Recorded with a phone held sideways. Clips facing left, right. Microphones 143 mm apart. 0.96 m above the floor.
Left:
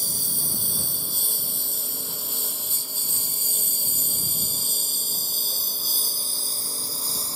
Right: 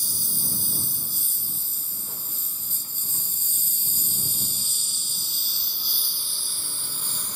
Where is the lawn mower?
65° left (ahead or behind); by 7.4 s 35° left (ahead or behind).